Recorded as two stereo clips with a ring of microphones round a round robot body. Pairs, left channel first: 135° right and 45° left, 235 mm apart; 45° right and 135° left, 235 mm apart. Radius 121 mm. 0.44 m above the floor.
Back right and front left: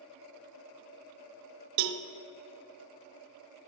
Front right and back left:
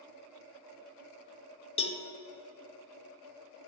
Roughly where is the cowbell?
Ahead left.